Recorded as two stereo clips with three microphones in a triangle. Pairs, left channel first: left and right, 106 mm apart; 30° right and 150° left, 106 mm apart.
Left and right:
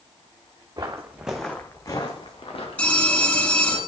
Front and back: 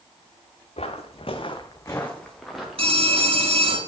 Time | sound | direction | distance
0.8 | footsteps | 35° right | 1.5 m
2.8 | a phone ringing | 165° left | 1.6 m